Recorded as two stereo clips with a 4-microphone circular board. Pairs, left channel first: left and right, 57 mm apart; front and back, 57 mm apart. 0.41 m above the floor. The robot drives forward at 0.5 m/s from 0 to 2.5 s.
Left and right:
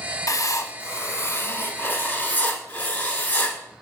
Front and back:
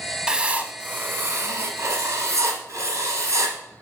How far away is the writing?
About 0.7 m.